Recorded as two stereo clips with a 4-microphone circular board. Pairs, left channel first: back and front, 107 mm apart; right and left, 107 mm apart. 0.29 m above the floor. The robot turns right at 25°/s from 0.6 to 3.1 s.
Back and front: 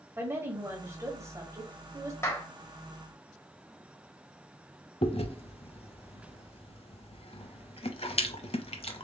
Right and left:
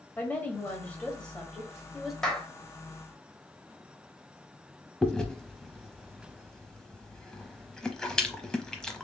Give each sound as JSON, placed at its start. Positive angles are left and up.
{"t": 0.2, "sound": "a woman speaking", "azimuth_deg": -35, "distance_m": 1.5}
{"t": 2.2, "sound": "a clap", "azimuth_deg": -165, "distance_m": 1.1}
{"t": 5.0, "sound": "chewing", "azimuth_deg": -175, "distance_m": 0.7}